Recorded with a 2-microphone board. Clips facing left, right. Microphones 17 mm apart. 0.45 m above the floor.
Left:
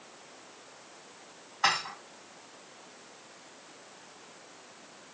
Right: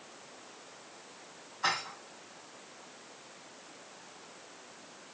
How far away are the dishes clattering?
About 2 m.